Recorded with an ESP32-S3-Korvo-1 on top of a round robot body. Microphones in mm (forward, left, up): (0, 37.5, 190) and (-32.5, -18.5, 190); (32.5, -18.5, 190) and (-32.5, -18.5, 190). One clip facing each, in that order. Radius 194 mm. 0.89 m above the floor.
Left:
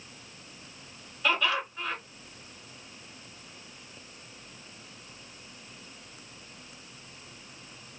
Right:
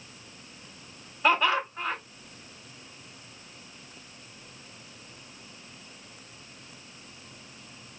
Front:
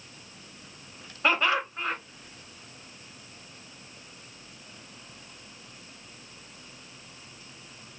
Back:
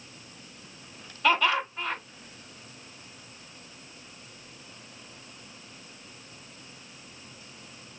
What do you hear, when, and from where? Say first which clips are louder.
1.2 s laughter: right 4 dB, back 1 dB; 60° right, 2.5 m